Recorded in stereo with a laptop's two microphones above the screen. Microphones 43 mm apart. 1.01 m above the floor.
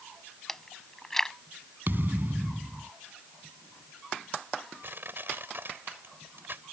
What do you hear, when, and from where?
0.5 s chewing: 10° left (ahead or behind)
1.9 s a thud: 45° right (ahead or behind)
4.8 s crushing: 50° right (ahead or behind)